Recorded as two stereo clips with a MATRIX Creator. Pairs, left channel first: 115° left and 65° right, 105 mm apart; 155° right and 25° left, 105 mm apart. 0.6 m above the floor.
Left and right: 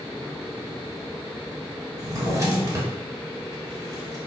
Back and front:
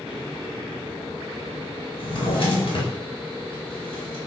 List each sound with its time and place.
2.0 s a drawer: 125° right, 1.2 m